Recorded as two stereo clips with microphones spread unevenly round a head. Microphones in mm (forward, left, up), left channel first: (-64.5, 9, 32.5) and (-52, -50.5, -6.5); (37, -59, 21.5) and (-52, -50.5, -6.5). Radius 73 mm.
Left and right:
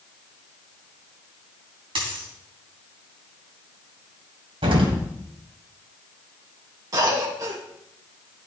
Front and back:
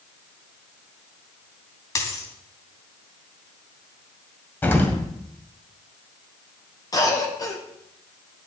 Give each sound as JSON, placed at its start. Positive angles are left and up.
{"t": 1.9, "sound": "a dropped coin", "azimuth_deg": -40, "distance_m": 3.0}
{"t": 4.6, "sound": "an explosion", "azimuth_deg": -60, "distance_m": 2.0}
{"t": 6.9, "sound": "a cough", "azimuth_deg": -55, "distance_m": 2.0}